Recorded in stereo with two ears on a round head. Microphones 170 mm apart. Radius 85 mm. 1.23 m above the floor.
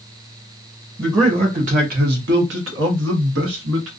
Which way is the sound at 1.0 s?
15° right (ahead or behind).